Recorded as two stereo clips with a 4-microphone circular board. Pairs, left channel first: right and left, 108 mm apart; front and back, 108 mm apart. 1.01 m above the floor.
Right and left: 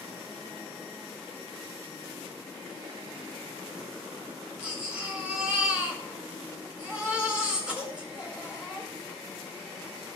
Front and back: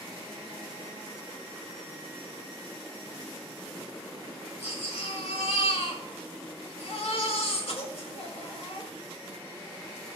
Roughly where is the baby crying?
Ahead.